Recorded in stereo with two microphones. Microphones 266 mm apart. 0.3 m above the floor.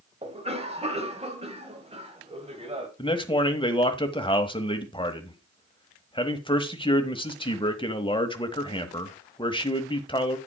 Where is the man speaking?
20° left (ahead or behind), 1.1 m.